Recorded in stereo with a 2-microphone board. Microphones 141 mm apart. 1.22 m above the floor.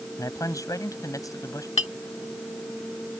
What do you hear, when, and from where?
0.2 s a man speaking: 25° left (ahead or behind)
1.8 s a clink: 50° left (ahead or behind)